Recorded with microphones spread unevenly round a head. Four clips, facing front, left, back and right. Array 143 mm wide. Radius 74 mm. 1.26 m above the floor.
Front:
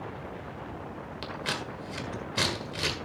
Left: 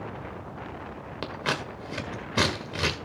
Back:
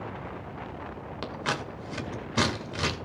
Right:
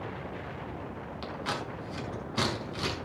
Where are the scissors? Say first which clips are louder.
Left 4 dB, back 4 dB; 100° left, 1.7 m.